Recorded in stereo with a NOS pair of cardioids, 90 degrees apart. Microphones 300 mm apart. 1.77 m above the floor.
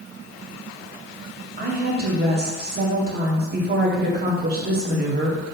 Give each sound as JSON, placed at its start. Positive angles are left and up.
{"t": 1.6, "sound": "a woman speaking", "azimuth_deg": -30, "distance_m": 1.6}